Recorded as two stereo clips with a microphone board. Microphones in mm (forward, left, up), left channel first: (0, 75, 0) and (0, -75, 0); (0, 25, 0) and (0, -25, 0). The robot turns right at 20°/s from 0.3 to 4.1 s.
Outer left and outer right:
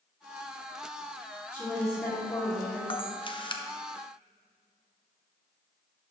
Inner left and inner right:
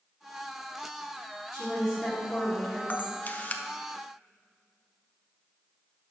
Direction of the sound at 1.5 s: 10° right (ahead or behind).